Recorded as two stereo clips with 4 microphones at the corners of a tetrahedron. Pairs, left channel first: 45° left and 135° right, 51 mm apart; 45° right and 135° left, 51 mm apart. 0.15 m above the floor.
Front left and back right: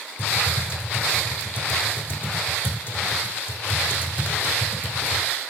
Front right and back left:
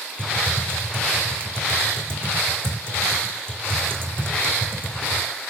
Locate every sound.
0.2 s typing on a keyboard: 95° left, 5 m